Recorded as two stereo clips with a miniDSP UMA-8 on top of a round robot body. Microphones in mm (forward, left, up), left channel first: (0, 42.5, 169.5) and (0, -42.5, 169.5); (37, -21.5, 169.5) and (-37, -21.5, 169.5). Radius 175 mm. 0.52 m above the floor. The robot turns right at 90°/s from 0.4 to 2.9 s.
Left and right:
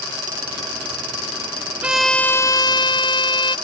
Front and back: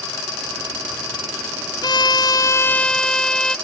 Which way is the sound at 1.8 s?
20° right.